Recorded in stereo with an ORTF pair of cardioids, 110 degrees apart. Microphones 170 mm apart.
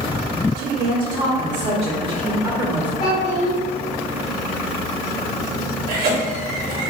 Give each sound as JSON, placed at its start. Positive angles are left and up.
{"t": 0.6, "sound": "a woman speaking", "azimuth_deg": -65, "distance_m": 1.6}
{"t": 3.0, "sound": "a child speaking", "azimuth_deg": 45, "distance_m": 1.7}
{"t": 5.9, "sound": "a cough", "azimuth_deg": -60, "distance_m": 1.9}